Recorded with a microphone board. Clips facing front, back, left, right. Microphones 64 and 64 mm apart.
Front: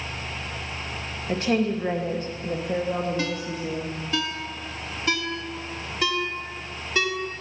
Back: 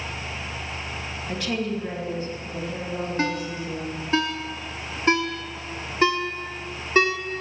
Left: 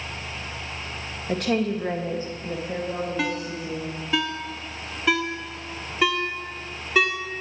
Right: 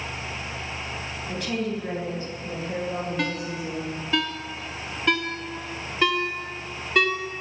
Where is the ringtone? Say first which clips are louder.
Back 2 dB, left 1 dB; 175° left, 0.9 m.